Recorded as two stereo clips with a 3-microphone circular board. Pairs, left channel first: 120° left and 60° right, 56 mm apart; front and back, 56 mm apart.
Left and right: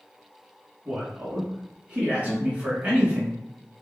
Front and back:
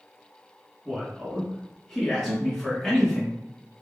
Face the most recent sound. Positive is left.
turn(degrees=-155)